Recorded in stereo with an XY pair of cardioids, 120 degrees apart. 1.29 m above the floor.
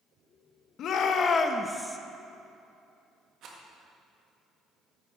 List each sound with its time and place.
0.8 s a shout: 60° left, 1.1 m; by 2.0 s 10° right, 0.8 m
3.4 s a rattle: 65° right, 1.6 m